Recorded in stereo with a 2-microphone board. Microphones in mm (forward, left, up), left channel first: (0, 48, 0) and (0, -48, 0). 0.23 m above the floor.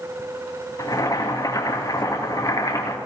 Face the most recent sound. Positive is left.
turn(degrees=40)  # may be behind; listen again after turning